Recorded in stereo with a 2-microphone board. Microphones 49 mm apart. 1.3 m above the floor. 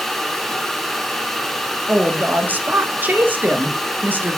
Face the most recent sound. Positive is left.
turn(degrees=-35)  # may be behind; listen again after turning